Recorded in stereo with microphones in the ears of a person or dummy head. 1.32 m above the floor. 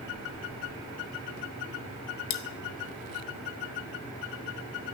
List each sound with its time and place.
2.3 s cutlery clinking: 35° left (ahead or behind), 0.7 m